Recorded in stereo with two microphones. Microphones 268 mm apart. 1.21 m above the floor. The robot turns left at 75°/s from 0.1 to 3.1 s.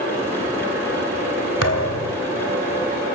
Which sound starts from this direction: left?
A thud, at 1.6 s.